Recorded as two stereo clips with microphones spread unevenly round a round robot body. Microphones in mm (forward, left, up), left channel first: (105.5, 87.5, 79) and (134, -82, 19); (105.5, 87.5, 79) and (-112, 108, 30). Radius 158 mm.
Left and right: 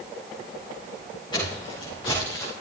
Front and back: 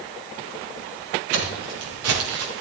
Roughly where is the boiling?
No boiling in this recording.